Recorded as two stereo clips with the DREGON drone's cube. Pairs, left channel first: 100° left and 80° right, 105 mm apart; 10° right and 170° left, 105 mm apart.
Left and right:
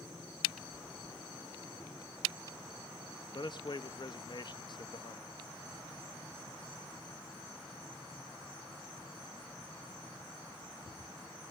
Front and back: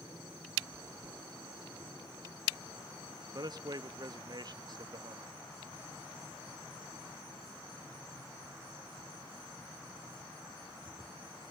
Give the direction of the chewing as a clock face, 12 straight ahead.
11 o'clock.